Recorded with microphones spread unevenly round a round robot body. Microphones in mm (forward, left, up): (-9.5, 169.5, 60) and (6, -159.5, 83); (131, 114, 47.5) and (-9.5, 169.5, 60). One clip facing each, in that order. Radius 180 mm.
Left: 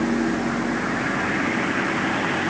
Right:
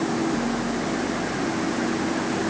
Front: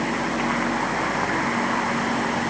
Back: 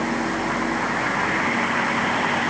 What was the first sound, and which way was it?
Only background noise.